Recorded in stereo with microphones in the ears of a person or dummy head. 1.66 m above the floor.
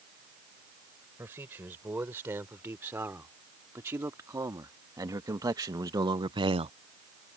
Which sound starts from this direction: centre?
A man speaking, at 1.2 s.